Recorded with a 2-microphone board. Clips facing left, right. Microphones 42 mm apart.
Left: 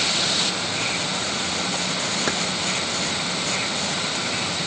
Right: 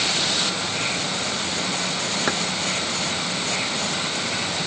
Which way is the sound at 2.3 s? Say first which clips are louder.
Right 2 dB; 10° right (ahead or behind).